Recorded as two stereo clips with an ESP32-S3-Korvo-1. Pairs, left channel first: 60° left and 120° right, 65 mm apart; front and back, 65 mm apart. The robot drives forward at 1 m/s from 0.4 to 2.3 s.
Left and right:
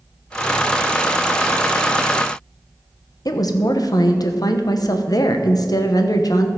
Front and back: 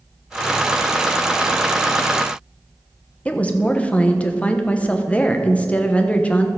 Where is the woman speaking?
70° left, 1.1 m.